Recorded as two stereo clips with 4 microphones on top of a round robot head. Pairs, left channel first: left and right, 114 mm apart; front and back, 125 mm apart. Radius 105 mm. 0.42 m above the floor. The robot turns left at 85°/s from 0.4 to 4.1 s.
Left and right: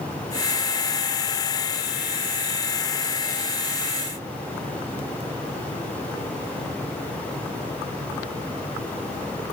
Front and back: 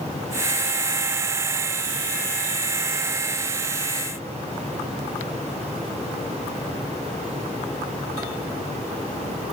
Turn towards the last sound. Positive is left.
No sound to turn to.